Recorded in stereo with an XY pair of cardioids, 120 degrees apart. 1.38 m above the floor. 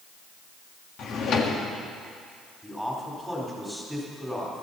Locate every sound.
1.0 s a drawer: 60° left, 1.6 m
2.6 s a man speaking: 5° left, 4 m